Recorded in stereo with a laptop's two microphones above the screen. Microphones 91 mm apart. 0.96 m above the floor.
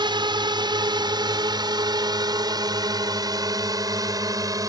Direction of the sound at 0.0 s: 60° right (ahead or behind).